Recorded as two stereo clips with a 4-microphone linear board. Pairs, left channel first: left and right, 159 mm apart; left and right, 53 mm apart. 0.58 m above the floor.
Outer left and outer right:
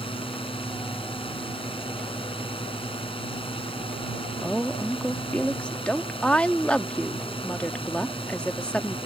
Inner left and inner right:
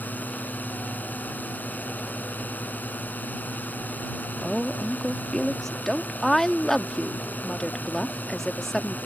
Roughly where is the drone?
Left.